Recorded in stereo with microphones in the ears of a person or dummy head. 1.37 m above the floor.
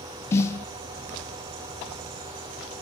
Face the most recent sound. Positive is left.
turn(degrees=15)  # may be behind; listen again after turning